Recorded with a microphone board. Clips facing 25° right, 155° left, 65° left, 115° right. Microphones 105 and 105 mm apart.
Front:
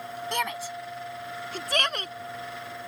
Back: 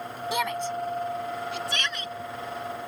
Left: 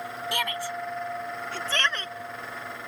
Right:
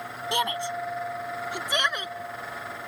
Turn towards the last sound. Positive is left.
turn(degrees=-35)